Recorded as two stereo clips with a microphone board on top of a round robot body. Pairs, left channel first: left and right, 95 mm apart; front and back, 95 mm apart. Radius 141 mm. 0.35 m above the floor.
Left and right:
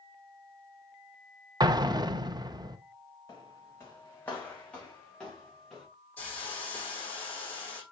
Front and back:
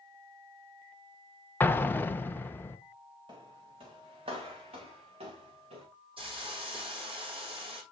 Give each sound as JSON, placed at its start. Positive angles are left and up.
{"t": 1.6, "sound": "an explosion", "azimuth_deg": -60, "distance_m": 0.8}
{"t": 3.3, "sound": "footsteps", "azimuth_deg": 145, "distance_m": 1.9}
{"t": 6.2, "sound": "a hiss", "azimuth_deg": 165, "distance_m": 5.0}